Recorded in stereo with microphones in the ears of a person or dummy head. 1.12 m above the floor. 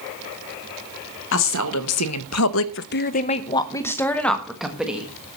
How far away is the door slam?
No door slam in this recording.